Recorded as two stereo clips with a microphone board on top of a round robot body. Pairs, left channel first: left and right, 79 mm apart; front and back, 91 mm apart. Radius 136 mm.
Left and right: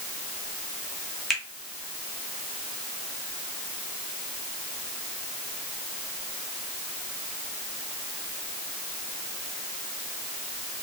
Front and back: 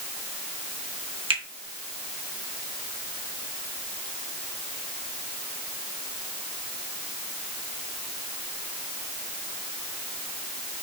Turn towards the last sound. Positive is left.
turn(degrees=180)